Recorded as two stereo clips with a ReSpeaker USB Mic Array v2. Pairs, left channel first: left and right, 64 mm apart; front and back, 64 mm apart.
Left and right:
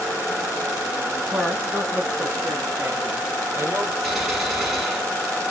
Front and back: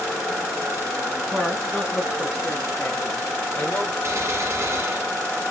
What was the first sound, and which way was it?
A woman speaking, 95° right.